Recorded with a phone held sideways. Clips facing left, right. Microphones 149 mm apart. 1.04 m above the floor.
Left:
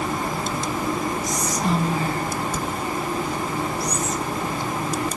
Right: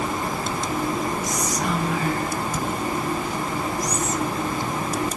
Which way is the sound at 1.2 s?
30° left (ahead or behind).